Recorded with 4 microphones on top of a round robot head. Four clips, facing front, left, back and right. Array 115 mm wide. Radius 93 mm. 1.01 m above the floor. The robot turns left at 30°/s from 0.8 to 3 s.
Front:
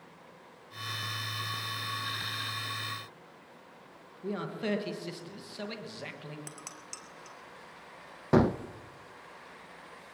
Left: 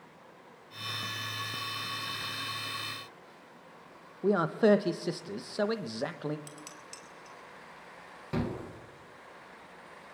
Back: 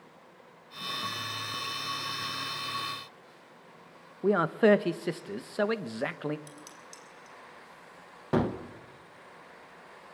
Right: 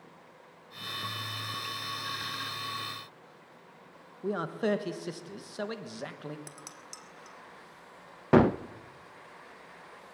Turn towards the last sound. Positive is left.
turn(degrees=-80)